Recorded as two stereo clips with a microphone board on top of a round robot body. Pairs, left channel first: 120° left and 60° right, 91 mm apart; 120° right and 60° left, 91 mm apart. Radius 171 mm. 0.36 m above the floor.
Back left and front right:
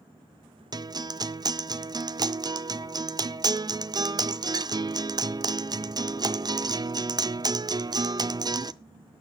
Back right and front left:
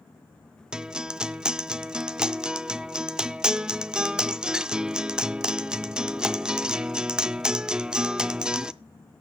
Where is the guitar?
20° right, 0.5 m.